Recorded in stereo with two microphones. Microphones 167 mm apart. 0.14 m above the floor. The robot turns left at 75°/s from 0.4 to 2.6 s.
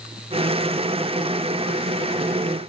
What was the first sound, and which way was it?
Only background noise.